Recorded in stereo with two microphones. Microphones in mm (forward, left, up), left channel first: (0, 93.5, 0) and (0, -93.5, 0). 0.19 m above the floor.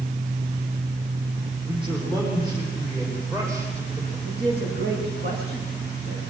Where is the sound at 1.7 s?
25° right (ahead or behind), 9 m; by 4.2 s 15° right (ahead or behind), 8 m.